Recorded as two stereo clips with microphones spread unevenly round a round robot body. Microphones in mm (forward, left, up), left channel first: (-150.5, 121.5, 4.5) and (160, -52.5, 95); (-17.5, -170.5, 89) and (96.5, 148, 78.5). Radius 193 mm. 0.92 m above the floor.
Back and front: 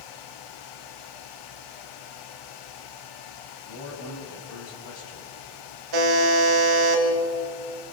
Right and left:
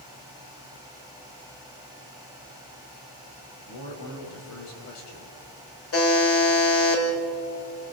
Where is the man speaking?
155° right, 5 m.